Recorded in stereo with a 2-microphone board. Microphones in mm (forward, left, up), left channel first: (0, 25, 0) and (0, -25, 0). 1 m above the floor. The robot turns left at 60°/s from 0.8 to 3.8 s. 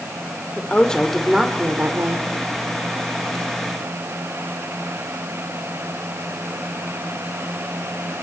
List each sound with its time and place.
0.6 s a woman speaking: 20° left, 3 m; by 2.2 s 65° right, 3 m